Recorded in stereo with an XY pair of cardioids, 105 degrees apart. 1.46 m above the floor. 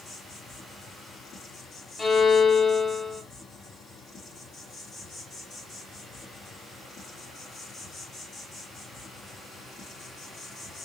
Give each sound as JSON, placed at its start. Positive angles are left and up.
{"t": 0.0, "sound": "an insect", "azimuth_deg": 60, "distance_m": 2.0}
{"t": 2.0, "sound": "a violin", "azimuth_deg": 30, "distance_m": 1.3}